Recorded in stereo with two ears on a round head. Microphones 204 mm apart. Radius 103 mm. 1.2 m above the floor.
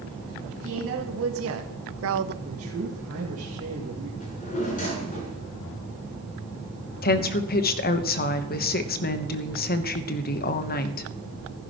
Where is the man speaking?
75° right (ahead or behind), 2 m.